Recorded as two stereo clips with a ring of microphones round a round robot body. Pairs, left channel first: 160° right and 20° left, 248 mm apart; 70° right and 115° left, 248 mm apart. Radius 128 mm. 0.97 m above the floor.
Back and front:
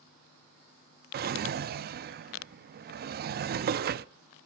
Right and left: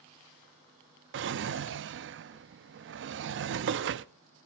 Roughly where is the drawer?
Left.